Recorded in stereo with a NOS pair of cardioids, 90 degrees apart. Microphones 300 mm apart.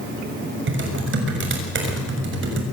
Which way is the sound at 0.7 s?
40° right.